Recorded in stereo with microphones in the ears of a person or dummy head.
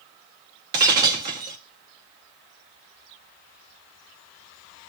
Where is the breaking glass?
20° right (ahead or behind), 0.6 m.